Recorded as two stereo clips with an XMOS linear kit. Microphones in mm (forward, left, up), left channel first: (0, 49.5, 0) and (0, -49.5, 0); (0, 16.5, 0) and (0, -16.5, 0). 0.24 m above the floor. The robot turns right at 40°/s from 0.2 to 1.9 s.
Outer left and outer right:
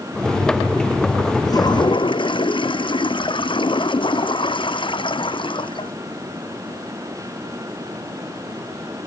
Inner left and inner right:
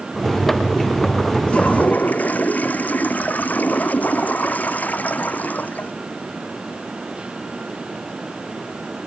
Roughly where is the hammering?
I don't hear hammering.